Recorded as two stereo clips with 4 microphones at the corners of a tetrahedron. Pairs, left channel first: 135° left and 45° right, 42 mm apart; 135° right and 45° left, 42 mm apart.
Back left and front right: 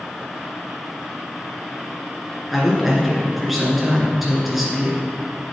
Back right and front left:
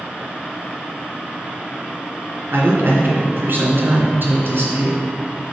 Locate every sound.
2.5 s a man speaking: 40° left, 1.9 m